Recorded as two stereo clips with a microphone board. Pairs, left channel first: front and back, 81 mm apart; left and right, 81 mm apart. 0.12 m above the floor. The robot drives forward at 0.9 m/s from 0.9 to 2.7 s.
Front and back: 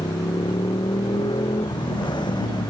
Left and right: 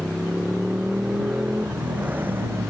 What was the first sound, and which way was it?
A motorcycle, straight ahead.